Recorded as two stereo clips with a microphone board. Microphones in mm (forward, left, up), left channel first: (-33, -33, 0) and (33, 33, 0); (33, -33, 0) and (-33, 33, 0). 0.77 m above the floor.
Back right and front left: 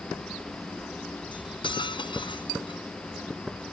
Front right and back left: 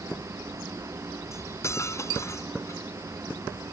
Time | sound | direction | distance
1.3 | cutlery clinking | 105° right | ?